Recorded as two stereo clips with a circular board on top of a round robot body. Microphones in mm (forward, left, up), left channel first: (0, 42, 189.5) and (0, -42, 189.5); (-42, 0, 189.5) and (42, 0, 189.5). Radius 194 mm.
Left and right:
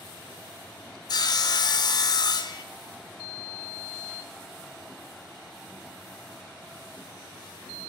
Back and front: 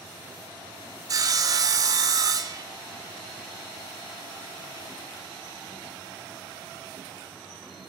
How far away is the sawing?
About 1.0 m.